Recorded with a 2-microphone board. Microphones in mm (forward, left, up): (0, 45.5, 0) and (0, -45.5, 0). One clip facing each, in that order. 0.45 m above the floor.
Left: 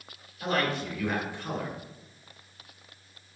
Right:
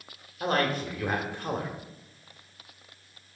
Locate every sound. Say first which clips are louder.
0.4 s a man speaking: right 2 dB; 45° right (ahead or behind), 1.7 m